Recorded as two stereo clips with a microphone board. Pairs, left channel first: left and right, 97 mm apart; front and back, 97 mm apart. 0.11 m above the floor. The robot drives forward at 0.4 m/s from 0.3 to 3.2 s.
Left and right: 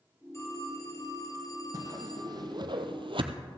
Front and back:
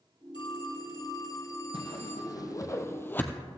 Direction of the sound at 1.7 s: 40° right.